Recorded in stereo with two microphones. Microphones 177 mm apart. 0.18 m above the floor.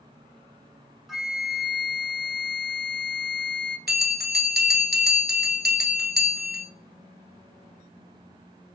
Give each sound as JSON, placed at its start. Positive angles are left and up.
{"t": 1.1, "sound": "a flute", "side_deg": 0, "distance_m": 0.8}
{"t": 3.9, "sound": "a bell", "side_deg": -75, "distance_m": 1.0}